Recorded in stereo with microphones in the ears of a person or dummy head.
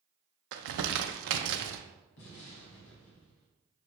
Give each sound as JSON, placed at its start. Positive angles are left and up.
{"t": 0.5, "sound": "crumpling", "side_deg": -70, "distance_m": 0.6}
{"t": 2.2, "sound": "an explosion", "side_deg": 70, "distance_m": 1.9}